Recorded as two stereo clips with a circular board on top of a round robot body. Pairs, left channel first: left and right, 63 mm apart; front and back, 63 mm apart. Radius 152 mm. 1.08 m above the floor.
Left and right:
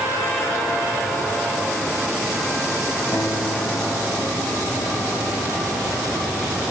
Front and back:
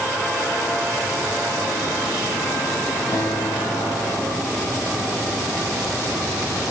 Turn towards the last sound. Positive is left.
turn(degrees=35)